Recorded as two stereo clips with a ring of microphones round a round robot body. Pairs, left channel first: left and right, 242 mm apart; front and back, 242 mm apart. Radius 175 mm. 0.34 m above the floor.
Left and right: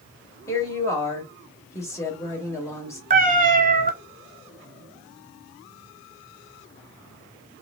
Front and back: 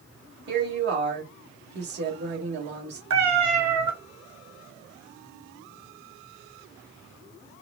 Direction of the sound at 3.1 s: 150° right.